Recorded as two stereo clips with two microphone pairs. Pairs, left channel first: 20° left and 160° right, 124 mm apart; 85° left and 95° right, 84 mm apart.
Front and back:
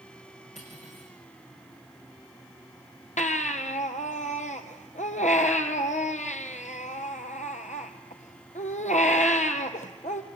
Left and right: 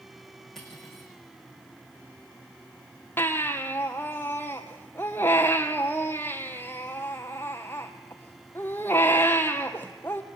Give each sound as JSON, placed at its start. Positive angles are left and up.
{"t": 0.6, "sound": "cutlery clinking", "azimuth_deg": 0, "distance_m": 6.5}
{"t": 3.2, "sound": "a baby crying", "azimuth_deg": 20, "distance_m": 1.7}